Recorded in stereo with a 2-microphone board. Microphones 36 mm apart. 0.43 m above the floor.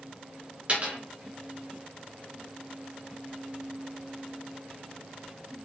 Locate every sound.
0.7 s a dropped coin: 35° right (ahead or behind), 1.4 m